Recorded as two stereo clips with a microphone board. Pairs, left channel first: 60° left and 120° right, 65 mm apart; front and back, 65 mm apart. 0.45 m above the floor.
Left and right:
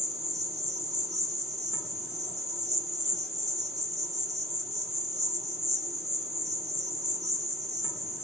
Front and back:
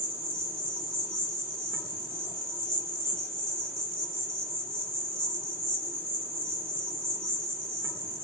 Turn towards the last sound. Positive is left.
turn(degrees=155)